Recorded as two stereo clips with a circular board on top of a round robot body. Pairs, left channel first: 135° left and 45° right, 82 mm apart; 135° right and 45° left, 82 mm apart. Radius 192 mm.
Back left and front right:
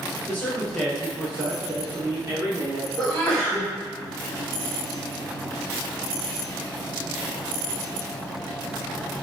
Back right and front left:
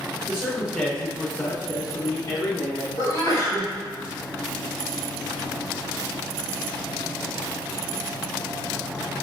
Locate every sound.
0.3 s a man speaking: 110° left, 0.9 m; by 2.9 s 90° right, 1.5 m
3.0 s a sneeze: 150° right, 1.5 m